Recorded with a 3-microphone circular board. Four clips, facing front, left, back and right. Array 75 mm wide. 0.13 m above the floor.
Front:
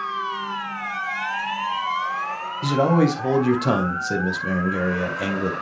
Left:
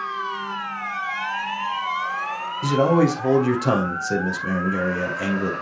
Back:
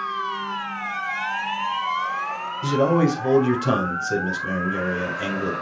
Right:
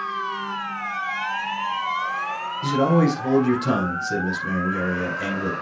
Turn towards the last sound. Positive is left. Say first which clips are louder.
# left 1 dB, front 1 dB
turn(degrees=40)